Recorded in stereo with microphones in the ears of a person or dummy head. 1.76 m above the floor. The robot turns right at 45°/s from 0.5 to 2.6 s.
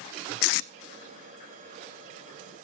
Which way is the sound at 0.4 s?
65° left (ahead or behind).